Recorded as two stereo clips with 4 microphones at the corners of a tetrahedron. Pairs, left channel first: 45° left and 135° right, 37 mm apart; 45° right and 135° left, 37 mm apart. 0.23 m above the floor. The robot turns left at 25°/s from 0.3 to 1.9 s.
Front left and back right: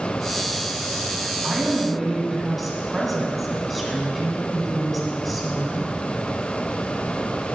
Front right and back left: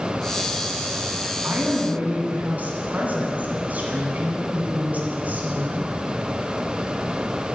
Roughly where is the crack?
No crack in this recording.